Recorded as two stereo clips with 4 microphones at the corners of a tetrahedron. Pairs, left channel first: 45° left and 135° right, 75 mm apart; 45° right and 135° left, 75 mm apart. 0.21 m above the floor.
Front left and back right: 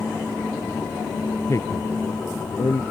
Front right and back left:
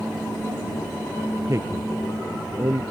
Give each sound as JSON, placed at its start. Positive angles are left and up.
{"t": 1.5, "sound": "a man speaking", "azimuth_deg": 90}